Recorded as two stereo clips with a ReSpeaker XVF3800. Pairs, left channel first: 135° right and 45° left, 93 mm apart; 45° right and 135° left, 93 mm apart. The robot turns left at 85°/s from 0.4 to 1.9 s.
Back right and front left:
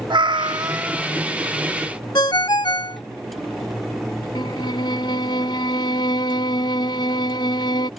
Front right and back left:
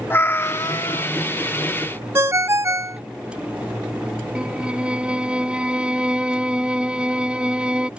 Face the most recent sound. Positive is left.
turn(degrees=-145)